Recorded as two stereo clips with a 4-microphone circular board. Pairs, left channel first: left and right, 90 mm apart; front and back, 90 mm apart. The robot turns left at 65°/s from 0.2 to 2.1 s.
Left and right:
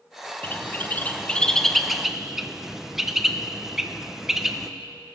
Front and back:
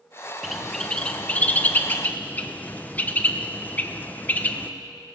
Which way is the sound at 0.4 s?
95° left.